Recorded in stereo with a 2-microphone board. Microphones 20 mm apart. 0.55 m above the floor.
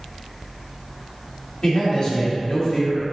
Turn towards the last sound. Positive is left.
turn(degrees=40)  # may be behind; listen again after turning